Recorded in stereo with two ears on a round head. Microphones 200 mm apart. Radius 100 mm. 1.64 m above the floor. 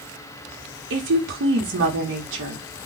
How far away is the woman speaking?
About 1.0 m.